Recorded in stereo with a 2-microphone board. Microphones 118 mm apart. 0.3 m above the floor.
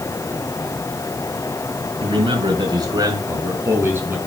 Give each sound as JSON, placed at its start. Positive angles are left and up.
{"t": 2.0, "sound": "a man speaking", "side_deg": -50, "distance_m": 4.0}